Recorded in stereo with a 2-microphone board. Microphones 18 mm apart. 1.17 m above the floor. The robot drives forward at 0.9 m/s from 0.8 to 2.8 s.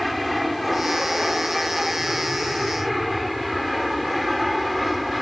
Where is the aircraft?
5° left (ahead or behind).